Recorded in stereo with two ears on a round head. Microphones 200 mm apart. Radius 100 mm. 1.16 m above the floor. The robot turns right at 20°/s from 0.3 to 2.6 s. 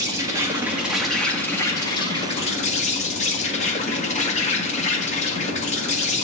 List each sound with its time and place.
0.0 s an insect: 15° right, 1.7 m; by 6.2 s 30° left, 1.7 m